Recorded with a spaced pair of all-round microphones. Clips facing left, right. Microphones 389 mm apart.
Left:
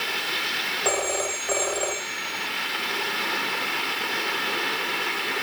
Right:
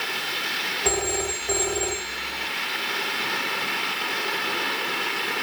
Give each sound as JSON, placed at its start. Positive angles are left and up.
{"t": 0.8, "sound": "a phone ringing", "side_deg": -35}